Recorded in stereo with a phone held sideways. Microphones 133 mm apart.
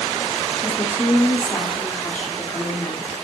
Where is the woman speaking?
10° left (ahead or behind), 1.5 m.